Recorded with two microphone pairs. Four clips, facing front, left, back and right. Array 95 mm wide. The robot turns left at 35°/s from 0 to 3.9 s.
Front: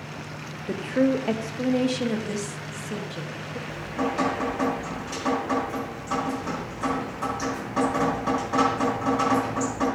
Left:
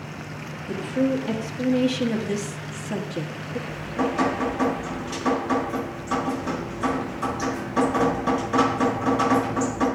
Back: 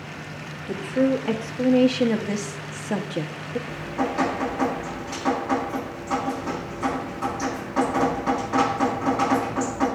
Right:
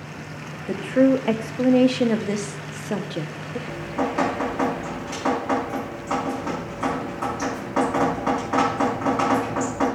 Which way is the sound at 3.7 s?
90° right.